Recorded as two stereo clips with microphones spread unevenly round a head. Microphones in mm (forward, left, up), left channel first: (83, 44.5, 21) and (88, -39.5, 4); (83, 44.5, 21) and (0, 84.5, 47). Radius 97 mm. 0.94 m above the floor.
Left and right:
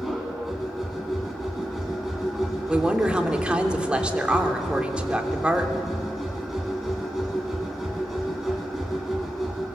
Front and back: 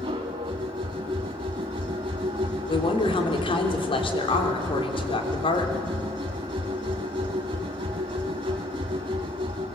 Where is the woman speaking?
10° right, 3 m.